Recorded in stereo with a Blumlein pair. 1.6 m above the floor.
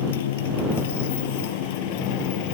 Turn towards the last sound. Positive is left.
turn(degrees=45)